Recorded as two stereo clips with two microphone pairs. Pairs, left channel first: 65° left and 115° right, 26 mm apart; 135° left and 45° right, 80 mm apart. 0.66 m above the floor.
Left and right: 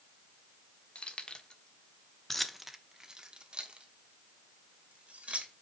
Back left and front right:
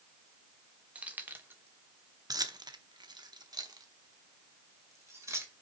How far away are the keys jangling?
About 1.2 m.